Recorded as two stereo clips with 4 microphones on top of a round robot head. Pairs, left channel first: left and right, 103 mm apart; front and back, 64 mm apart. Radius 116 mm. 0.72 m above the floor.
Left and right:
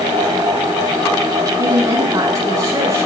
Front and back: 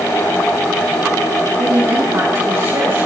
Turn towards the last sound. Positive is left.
turn(degrees=-145)